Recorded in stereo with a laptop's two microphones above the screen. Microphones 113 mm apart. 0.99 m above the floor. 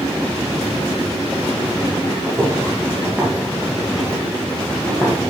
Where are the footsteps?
20° right (ahead or behind), 3 m; by 5.2 s 35° left (ahead or behind), 2.0 m.